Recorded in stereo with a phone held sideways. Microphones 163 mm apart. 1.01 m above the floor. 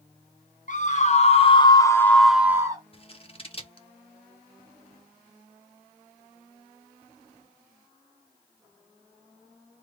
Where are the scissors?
40° left (ahead or behind), 0.8 m.